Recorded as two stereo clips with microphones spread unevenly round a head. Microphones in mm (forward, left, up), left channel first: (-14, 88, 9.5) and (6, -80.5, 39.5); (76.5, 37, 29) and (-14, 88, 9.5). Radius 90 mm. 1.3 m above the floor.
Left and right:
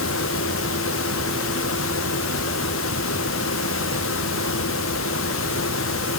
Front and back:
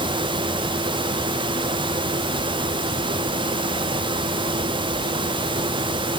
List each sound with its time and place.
Only background noise.